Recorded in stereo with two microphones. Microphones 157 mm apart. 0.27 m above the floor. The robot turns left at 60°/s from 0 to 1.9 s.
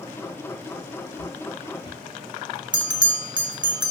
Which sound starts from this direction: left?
Footsteps, at 1.2 s.